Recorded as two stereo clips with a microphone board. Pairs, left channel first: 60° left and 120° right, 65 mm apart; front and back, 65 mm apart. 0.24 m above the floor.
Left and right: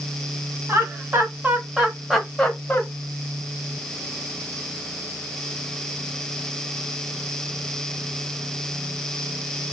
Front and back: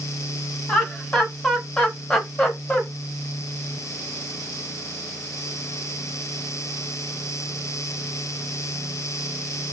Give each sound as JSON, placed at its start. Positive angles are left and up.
{"t": 0.7, "sound": "laughter", "azimuth_deg": -80, "distance_m": 1.5}